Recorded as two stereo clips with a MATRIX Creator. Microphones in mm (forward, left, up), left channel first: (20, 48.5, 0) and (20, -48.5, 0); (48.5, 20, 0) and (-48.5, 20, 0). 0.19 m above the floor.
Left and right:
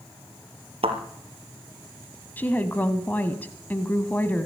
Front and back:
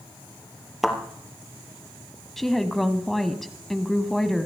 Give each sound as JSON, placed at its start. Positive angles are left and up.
{"t": 0.8, "sound": "a thud", "azimuth_deg": -90, "distance_m": 2.0}
{"t": 2.4, "sound": "a woman speaking", "azimuth_deg": 85, "distance_m": 1.0}